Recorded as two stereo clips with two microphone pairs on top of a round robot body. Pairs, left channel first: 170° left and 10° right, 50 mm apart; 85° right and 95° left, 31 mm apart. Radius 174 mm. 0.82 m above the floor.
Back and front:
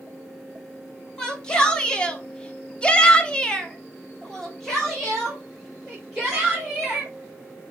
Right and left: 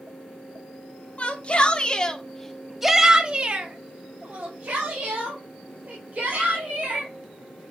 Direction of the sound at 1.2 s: 110° right.